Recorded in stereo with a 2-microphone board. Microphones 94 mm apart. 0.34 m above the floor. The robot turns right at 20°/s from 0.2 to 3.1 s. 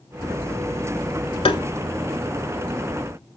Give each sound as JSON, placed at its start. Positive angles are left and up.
{"t": 1.4, "sound": "tapping", "side_deg": 85, "distance_m": 0.9}